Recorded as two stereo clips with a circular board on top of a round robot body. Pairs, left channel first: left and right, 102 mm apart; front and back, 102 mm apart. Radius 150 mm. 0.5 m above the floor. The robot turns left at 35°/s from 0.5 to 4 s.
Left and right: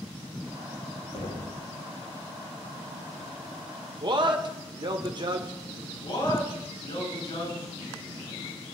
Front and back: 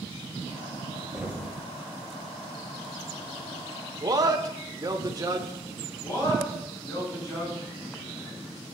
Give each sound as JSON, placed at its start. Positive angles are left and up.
{"t": 1.1, "sound": "knocking", "azimuth_deg": 105, "distance_m": 2.5}
{"t": 4.0, "sound": "a man speaking", "azimuth_deg": -130, "distance_m": 1.8}
{"t": 6.0, "sound": "a man speaking", "azimuth_deg": 50, "distance_m": 6.5}